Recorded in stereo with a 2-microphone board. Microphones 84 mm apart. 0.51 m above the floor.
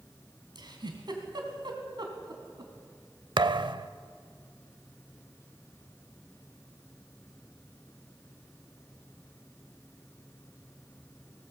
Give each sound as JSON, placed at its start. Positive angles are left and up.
{"t": 0.6, "sound": "a giggle", "side_deg": -60, "distance_m": 2.5}
{"t": 3.4, "sound": "a thud", "side_deg": -65, "distance_m": 0.6}